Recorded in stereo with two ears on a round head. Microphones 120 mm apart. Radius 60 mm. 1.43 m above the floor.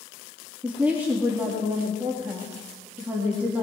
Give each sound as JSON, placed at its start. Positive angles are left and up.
{"t": 0.6, "sound": "a woman speaking", "side_deg": -10, "distance_m": 3.0}